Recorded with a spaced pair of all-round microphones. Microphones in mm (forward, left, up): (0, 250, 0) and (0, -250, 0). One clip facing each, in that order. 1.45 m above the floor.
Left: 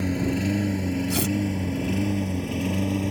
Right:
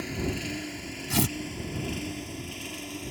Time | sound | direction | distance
0.0 | a lawn mower | 70° left (ahead or behind) | ?
1.1 | tearing paper | 20° right (ahead or behind) | ?